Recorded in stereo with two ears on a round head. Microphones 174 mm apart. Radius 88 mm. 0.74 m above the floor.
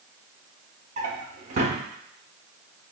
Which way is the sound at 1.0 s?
35° right (ahead or behind).